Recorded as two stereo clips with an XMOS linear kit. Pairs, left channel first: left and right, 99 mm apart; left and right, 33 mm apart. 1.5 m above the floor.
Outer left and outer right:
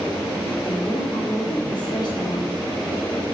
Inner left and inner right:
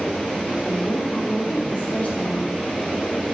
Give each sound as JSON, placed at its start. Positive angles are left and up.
{"t": 0.7, "sound": "a woman speaking", "side_deg": 50, "distance_m": 4.5}